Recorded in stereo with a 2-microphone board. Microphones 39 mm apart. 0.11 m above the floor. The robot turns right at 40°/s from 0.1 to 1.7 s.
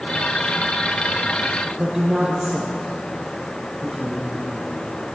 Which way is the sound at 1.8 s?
20° right (ahead or behind).